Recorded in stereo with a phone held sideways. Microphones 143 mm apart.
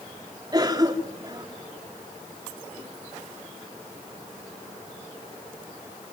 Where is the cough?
30° right (ahead or behind), 3.5 m.